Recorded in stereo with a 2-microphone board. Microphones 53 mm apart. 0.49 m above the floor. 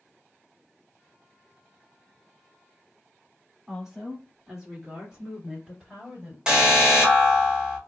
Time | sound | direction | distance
3.7 | a woman speaking | 5° right (ahead or behind) | 1.3 m
6.5 | an alarm | 20° right (ahead or behind) | 1.1 m